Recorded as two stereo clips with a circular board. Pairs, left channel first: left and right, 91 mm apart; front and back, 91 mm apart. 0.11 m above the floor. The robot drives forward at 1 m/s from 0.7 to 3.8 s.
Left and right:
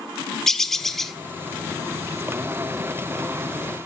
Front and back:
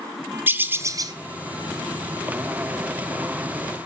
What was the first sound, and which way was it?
A bird, 170° left.